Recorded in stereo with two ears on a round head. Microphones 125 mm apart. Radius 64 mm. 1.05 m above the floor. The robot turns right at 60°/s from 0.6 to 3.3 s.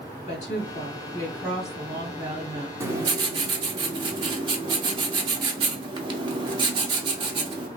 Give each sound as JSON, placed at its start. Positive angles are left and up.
{"t": 0.3, "sound": "a woman speaking", "azimuth_deg": 120, "distance_m": 1.6}
{"t": 2.8, "sound": "writing", "azimuth_deg": -145, "distance_m": 0.7}